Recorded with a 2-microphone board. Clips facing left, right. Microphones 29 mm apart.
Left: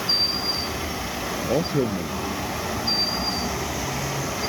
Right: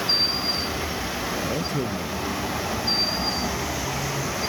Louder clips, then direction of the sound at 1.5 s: Left 4 dB; 35° left (ahead or behind).